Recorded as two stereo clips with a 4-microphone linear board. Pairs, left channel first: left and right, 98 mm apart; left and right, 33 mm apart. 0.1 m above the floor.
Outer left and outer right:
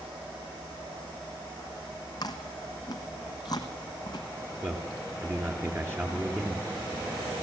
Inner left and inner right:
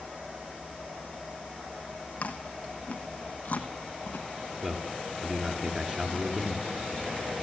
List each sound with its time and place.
2.2 s chewing: 40° left (ahead or behind), 1.3 m
4.6 s a man speaking: 25° right (ahead or behind), 2 m